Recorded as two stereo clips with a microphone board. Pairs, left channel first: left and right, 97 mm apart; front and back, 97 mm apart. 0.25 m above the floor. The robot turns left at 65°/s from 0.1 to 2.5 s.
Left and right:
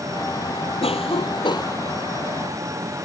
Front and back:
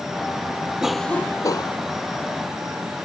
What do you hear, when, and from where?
0.8 s a cough: 100° left; by 1.8 s 35° left